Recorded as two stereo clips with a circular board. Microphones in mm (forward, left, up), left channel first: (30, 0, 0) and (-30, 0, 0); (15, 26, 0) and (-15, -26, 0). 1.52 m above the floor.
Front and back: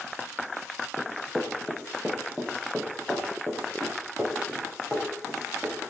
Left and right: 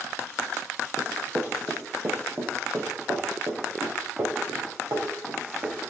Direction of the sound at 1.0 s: 90° right.